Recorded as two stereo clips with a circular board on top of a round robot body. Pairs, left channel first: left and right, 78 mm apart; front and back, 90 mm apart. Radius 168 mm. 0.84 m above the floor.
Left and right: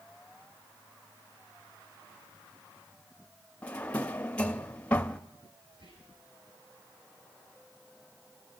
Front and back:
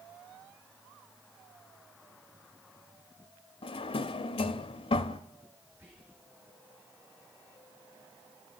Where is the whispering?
105° right, 5 m.